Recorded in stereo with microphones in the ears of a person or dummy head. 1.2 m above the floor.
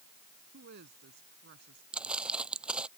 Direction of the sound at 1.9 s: 5° right (ahead or behind).